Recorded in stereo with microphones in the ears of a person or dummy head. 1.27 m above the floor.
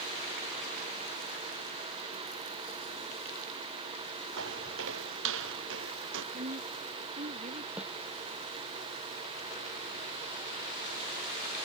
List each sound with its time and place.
4.4 s footsteps: 70° right (ahead or behind); by 6.2 s 75° right (ahead or behind)
6.3 s a woman speaking: 40° right (ahead or behind)
7.8 s a snare drum: 10° right (ahead or behind)